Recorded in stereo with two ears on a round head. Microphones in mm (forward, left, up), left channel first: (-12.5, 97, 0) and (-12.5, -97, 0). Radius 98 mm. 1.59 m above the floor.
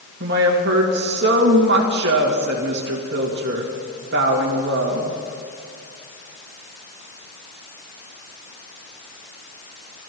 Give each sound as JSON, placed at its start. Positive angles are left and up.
{"t": 0.2, "sound": "a woman speaking", "side_deg": -50, "distance_m": 2.0}